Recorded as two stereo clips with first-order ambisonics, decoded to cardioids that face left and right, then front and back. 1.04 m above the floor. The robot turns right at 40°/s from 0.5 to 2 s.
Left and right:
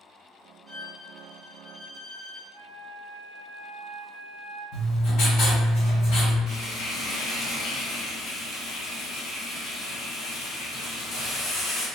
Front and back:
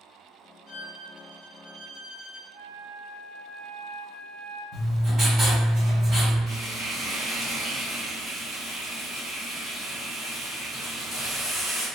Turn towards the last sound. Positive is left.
turn(degrees=80)